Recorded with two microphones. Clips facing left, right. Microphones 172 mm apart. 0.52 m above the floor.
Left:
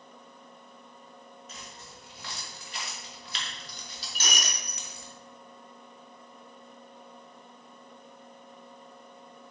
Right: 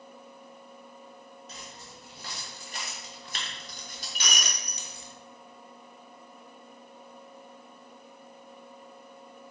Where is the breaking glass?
45° left (ahead or behind), 0.8 m.